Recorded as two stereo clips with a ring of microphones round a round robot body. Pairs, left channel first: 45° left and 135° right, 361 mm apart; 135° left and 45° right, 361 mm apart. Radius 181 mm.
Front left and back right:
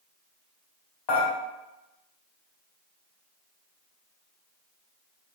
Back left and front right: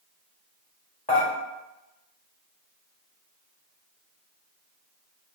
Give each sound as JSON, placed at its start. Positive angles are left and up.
{"t": 1.1, "sound": "dishes clattering", "azimuth_deg": 60, "distance_m": 1.3}